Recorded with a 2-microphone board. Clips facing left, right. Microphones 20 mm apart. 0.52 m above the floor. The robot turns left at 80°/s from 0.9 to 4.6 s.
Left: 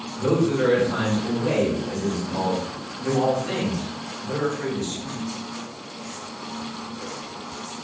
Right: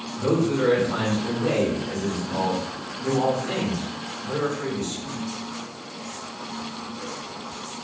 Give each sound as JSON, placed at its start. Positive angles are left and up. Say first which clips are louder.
{"t": 0.2, "sound": "a man speaking", "louder": "left 1 dB", "azimuth_deg": -5, "distance_m": 1.7}